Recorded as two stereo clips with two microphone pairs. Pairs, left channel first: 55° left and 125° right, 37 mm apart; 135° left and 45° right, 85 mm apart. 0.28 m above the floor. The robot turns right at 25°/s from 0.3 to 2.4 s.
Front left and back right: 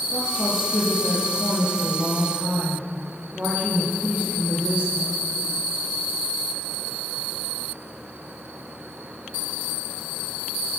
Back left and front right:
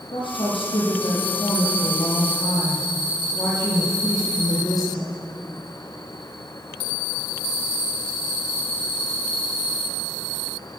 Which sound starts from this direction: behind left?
A woman speaking, at 0.1 s.